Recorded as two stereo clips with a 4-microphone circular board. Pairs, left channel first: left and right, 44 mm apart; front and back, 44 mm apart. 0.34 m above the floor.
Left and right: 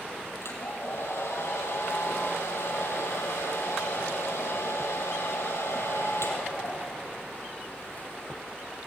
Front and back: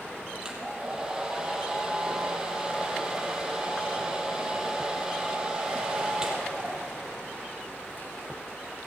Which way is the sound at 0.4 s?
105° left.